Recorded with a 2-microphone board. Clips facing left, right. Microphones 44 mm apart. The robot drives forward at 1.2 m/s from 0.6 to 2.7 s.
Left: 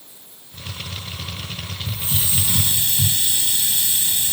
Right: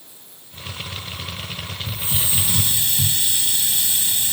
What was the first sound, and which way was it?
A hiss, 15° right (ahead or behind).